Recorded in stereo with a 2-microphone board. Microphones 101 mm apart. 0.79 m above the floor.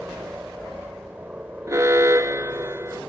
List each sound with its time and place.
0.0 s a helicopter: 15° right (ahead or behind)
1.7 s an alarm: 30° right (ahead or behind)